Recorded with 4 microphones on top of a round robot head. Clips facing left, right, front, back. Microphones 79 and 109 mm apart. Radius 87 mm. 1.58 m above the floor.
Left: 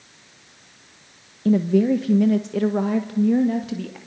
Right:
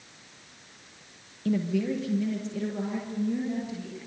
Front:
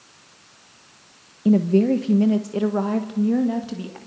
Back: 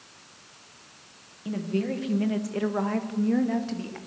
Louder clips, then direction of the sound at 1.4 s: Left 9 dB, front 12 dB; 40° left.